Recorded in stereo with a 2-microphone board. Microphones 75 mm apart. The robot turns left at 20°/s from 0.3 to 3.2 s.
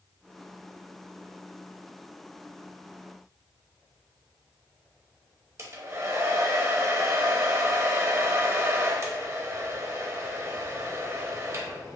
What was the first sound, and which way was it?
A hair dryer, 40° right (ahead or behind).